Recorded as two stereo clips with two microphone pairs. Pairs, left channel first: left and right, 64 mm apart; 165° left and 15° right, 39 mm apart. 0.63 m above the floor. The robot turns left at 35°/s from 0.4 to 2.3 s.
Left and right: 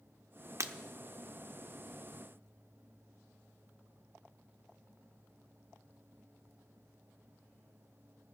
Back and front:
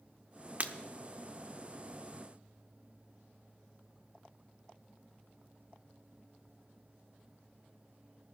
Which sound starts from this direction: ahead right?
Breaking glass, at 0.6 s.